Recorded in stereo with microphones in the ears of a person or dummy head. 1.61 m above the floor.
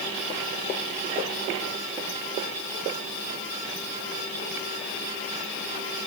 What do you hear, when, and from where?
Only background noise.